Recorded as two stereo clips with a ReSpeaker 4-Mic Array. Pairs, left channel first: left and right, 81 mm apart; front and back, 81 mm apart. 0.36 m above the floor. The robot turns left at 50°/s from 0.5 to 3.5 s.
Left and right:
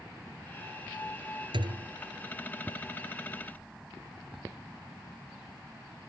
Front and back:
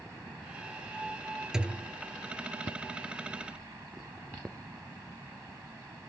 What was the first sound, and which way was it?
A thud, 100° right.